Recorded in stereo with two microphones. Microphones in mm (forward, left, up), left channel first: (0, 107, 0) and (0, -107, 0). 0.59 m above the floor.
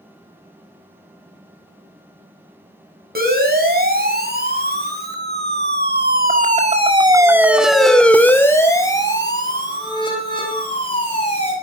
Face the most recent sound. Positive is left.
turn(degrees=25)  # may be behind; listen again after turning